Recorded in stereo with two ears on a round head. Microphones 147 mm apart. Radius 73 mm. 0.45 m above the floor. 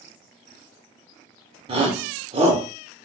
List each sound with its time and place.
1.7 s a shout: 35° right (ahead or behind), 1.0 m